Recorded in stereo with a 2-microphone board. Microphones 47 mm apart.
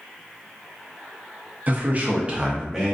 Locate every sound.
1.7 s a man speaking: 40° right (ahead or behind), 0.6 m; by 2.9 s 10° right (ahead or behind), 0.6 m